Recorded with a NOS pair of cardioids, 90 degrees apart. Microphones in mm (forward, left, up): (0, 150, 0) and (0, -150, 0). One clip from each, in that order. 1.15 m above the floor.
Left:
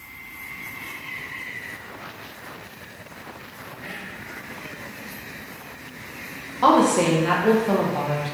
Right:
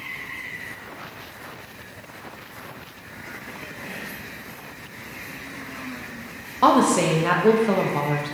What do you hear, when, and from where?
3.8 s whispering: 15° right, 1.8 m
6.6 s a woman speaking: 15° right, 0.6 m